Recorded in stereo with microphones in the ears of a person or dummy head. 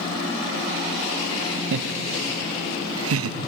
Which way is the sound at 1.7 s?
60° right (ahead or behind).